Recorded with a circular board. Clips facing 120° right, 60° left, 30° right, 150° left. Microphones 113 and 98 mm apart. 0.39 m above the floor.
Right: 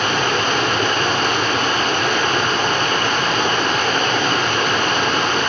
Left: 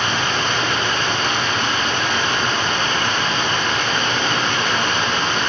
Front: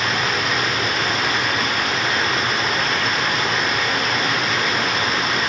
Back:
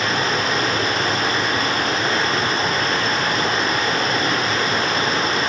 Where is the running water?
160° right, 0.9 m.